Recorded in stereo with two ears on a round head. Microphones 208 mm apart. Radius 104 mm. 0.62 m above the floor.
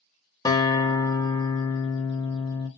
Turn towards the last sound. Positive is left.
turn(degrees=15)  # may be behind; listen again after turning